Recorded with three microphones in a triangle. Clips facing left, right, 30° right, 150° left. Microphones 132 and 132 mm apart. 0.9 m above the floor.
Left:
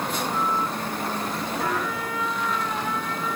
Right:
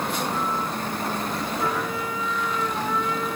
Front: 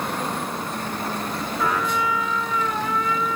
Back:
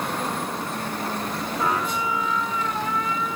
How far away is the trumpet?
About 1.7 m.